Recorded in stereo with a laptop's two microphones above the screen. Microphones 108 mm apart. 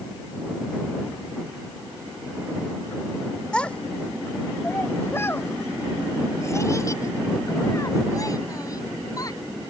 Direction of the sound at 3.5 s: 10° left (ahead or behind).